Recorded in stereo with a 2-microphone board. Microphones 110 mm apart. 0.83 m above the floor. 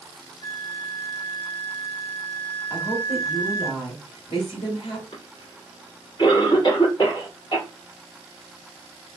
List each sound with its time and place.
0.4 s a flute: 60° left (ahead or behind), 1.6 m
2.7 s a woman speaking: 55° left (ahead or behind), 1.9 m
5.1 s a cough: 45° left (ahead or behind), 1.8 m